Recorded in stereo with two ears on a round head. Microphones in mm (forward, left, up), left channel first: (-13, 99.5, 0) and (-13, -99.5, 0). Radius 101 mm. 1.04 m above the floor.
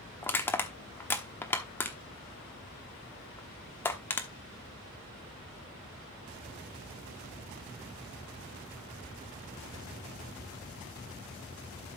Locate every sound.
0.2 s crushing: 10° left (ahead or behind), 1.1 m